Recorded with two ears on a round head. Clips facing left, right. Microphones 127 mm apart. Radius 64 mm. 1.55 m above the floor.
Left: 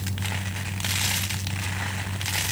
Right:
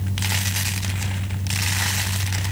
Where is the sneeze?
No sneeze in this recording.